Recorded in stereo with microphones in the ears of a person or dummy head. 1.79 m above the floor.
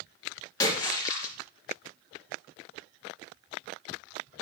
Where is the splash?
20° left (ahead or behind), 2.5 m.